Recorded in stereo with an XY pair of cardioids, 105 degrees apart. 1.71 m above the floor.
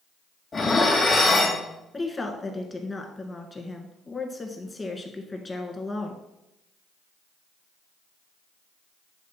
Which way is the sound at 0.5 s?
35° left.